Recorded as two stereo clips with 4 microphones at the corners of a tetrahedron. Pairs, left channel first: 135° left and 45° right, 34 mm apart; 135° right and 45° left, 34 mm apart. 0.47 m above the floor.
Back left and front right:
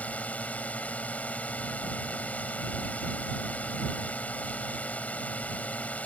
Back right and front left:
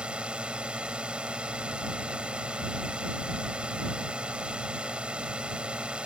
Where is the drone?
100° left.